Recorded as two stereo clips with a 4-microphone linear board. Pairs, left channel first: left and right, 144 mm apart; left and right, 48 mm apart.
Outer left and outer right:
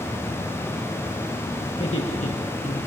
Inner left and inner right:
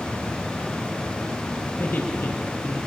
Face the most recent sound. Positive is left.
turn(degrees=55)  # may be behind; listen again after turning